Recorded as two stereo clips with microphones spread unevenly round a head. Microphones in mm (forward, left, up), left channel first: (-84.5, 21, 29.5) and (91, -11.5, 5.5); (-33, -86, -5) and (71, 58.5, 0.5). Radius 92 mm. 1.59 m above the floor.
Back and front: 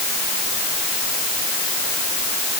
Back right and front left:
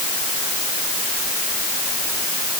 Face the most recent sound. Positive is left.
No sound to turn to.